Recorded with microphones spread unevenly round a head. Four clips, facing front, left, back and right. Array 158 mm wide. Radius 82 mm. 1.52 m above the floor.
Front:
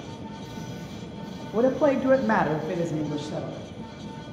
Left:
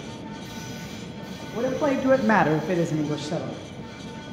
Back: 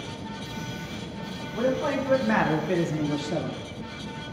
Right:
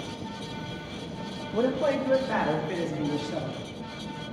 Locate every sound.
1.5 s a man speaking: 15° right, 0.8 m; by 3.6 s 110° left, 1.9 m